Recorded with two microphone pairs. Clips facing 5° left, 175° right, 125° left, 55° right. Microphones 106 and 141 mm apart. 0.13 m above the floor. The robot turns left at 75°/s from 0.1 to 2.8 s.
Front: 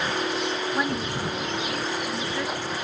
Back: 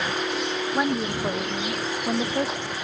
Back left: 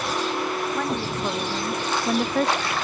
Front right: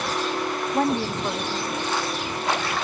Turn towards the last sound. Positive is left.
turn(degrees=100)